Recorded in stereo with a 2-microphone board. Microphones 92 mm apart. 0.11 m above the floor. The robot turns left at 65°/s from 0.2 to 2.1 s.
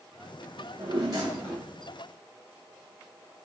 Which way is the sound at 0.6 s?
100° right.